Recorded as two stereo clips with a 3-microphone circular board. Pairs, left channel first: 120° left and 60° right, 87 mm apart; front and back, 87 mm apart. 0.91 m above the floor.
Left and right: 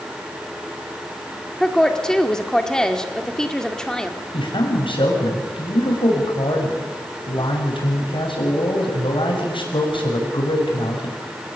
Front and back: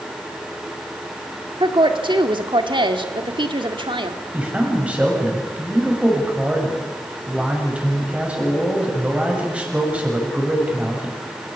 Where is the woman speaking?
160° right, 1.9 m.